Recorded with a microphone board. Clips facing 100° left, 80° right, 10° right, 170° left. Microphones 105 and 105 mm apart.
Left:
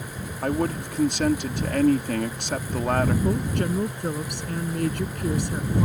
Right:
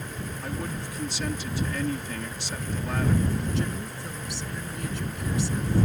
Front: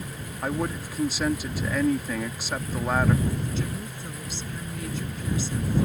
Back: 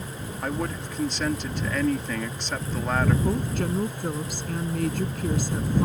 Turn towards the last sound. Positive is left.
turn(degrees=135)